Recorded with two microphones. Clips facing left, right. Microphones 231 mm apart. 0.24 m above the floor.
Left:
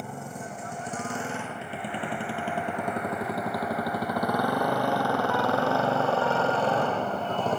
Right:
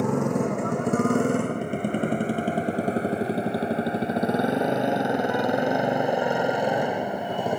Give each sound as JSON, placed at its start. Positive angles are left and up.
{"t": 0.0, "sound": "a motorcycle", "side_deg": -80}